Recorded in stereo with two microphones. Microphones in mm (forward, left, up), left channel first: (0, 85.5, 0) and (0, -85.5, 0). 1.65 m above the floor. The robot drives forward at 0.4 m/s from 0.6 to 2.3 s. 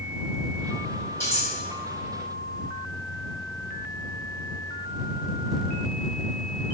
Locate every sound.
1.2 s cutlery clinking: 15° left (ahead or behind), 1.9 m